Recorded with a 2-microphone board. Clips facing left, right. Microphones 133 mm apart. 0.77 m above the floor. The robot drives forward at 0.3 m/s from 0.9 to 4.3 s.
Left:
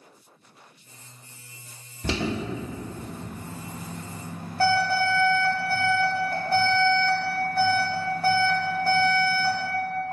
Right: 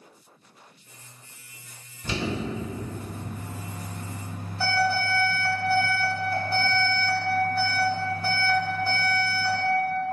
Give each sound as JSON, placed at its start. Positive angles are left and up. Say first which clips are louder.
{"t": 2.0, "sound": "an alarm", "louder": "left 1 dB", "side_deg": 70, "distance_m": 1.2}